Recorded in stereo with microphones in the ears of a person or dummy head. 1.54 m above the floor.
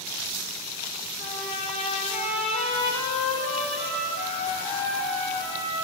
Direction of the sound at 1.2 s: 45° left (ahead or behind).